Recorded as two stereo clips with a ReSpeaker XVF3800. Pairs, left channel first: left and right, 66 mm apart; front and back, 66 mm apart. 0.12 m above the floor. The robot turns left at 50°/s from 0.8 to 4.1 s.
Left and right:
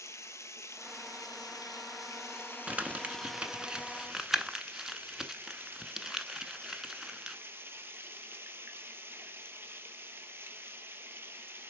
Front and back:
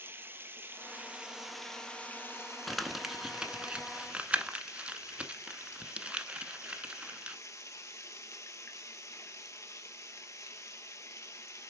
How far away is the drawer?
I don't hear a drawer.